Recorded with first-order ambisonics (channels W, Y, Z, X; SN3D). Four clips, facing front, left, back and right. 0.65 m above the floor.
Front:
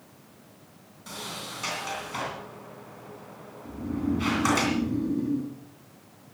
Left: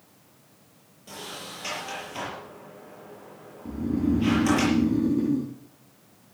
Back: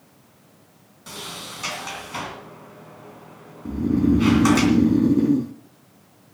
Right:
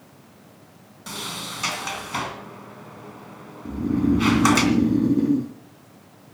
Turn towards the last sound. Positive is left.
turn(degrees=-160)